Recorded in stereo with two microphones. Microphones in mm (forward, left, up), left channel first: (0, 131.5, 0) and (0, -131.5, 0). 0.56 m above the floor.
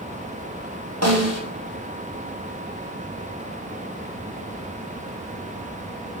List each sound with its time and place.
1.0 s a snare drum: 75° right (ahead or behind), 3 m